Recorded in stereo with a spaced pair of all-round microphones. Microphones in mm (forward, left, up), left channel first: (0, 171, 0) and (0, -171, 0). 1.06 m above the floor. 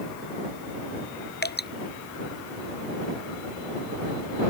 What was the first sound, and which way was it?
Dripping, 30° left (ahead or behind).